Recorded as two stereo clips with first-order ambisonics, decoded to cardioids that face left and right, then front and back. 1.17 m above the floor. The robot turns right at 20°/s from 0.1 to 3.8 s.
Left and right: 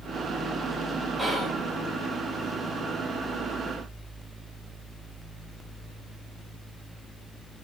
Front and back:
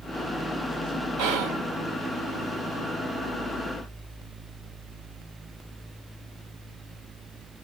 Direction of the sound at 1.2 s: 175° right.